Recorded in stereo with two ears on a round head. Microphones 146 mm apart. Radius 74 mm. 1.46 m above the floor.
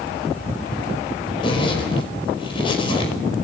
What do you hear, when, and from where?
1.4 s a zipper: 35° left (ahead or behind), 5.5 m